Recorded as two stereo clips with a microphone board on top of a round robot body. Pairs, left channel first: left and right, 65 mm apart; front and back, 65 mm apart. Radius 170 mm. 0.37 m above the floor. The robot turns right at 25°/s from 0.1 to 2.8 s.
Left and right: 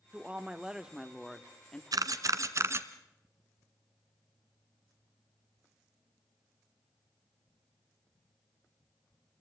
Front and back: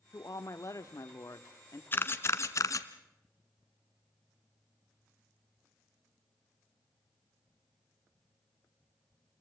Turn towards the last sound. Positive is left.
turn(degrees=-40)